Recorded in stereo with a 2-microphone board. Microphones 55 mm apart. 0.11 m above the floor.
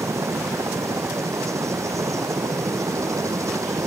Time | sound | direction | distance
0.0 | a helicopter | 70° right (ahead or behind) | ?